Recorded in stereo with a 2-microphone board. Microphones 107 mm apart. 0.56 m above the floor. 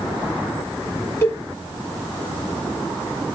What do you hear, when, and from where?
1.2 s a cowbell: 25° left (ahead or behind), 1.4 m